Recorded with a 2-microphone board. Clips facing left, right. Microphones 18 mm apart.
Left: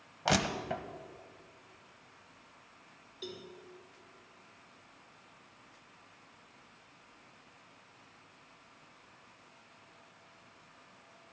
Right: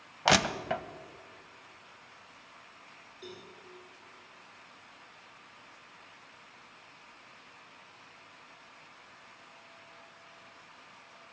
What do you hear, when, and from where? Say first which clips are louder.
0.2 s crushing: right 5 dB; 30° right (ahead or behind), 0.7 m
3.2 s a cowbell: left 3 dB; 40° left (ahead or behind), 3 m